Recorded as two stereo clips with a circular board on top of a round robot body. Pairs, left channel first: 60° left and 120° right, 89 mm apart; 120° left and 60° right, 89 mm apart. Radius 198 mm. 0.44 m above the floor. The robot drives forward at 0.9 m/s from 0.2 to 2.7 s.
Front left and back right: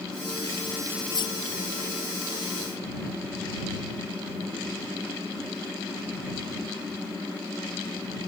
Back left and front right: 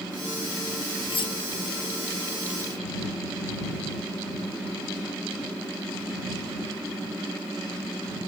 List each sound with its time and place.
1.1 s cutlery clinking: 95° left; by 1.4 s 100° left